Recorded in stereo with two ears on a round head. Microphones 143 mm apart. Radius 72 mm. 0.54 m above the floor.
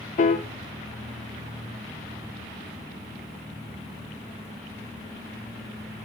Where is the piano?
50° left (ahead or behind), 0.6 m.